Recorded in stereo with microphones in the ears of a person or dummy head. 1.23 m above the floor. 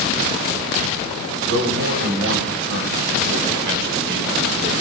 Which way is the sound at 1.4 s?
75° right (ahead or behind).